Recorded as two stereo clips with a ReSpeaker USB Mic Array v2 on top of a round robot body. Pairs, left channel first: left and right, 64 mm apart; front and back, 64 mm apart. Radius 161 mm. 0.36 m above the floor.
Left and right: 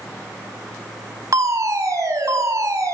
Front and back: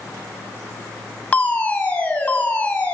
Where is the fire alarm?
70° right, 4 m.